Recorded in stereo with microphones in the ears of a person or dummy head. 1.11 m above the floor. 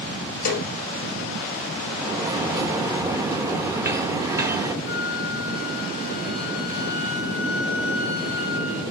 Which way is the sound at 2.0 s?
15° right (ahead or behind).